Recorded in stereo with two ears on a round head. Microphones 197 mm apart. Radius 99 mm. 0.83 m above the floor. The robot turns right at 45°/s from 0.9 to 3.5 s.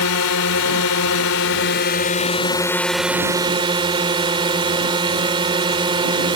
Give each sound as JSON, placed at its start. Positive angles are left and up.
{"t": 0.0, "sound": "a drone", "azimuth_deg": 85}